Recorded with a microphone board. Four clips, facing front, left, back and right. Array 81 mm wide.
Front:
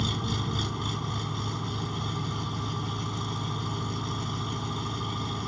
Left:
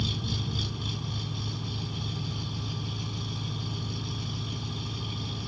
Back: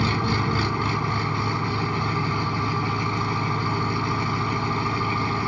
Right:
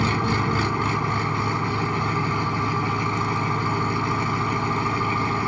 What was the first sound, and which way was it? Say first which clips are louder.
An engine running: right 13 dB, back 8 dB; 120° right.